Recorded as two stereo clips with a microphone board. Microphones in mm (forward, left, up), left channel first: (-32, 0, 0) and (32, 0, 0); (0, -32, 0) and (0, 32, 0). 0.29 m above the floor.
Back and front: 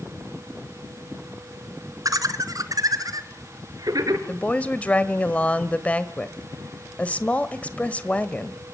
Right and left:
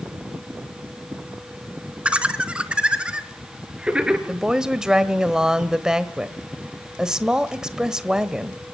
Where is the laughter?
20° left, 3 m; by 4.2 s 15° left, 4.5 m.